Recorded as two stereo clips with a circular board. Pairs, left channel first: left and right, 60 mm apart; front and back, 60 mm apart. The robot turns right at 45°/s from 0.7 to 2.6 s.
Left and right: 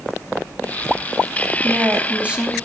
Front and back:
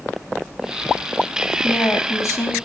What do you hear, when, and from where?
1.6 s a woman speaking: 50° right, 3 m; by 2.5 s 10° right, 3 m